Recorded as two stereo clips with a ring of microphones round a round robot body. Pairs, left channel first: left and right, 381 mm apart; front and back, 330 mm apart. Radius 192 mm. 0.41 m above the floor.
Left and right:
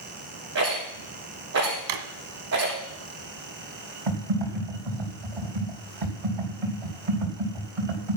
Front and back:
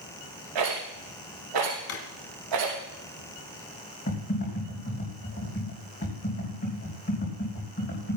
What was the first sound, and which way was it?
A rattle, 145° right.